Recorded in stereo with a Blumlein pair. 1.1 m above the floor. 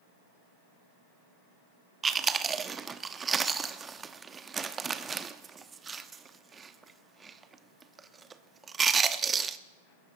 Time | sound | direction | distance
2.0 | chewing | 15° right | 1.0 m